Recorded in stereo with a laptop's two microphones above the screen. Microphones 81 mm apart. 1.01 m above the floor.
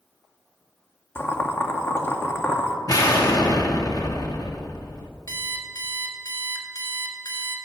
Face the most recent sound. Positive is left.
turn(degrees=45)  # may be behind; listen again after turning